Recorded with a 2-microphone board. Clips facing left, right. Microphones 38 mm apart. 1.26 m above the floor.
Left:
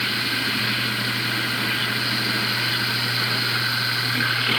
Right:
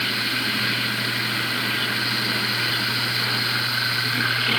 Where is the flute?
No flute in this recording.